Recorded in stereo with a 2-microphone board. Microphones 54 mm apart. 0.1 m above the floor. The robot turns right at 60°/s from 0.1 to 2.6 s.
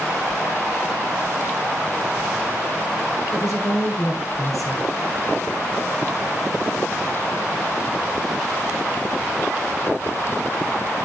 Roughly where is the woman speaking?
Left.